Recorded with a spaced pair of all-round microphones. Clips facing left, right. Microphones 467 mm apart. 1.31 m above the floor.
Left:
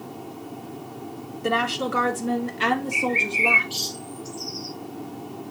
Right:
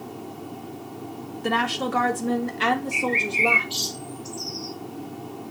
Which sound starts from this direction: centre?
A woman speaking, at 1.4 s.